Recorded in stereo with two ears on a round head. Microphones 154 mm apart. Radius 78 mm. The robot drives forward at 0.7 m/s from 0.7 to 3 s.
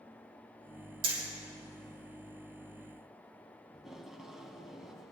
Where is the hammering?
60° right (ahead or behind), 3.5 m; by 1.2 s 65° right (ahead or behind), 3.5 m.